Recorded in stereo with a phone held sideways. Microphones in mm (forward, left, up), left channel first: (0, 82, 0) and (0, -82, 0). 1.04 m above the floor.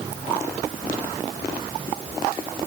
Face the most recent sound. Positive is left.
No sound to turn to.